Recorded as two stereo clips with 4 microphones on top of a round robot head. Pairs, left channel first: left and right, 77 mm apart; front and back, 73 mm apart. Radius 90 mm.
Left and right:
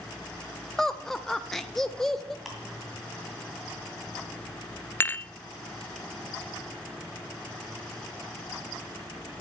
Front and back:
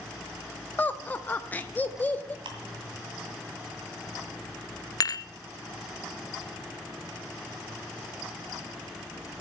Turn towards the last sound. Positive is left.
turn(degrees=30)